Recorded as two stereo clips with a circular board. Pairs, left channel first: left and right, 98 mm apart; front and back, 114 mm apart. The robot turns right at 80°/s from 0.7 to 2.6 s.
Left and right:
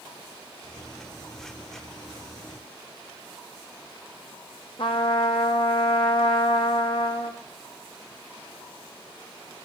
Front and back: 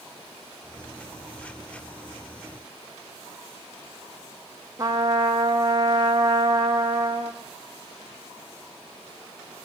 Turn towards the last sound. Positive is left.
turn(degrees=120)